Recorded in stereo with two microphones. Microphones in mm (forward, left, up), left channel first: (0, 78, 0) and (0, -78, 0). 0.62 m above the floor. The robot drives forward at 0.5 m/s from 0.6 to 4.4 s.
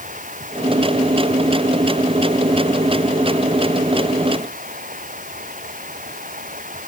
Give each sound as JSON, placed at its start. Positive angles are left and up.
{"t": 0.0, "sound": "running water", "side_deg": -55}